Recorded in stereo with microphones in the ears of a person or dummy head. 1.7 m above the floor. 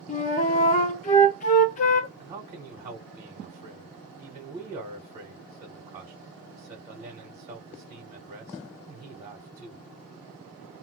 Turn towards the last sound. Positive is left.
turn(degrees=-25)  # may be behind; listen again after turning